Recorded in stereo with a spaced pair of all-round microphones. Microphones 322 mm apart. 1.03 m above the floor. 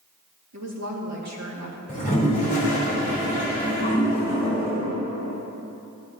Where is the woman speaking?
55° right (ahead or behind), 1.9 m.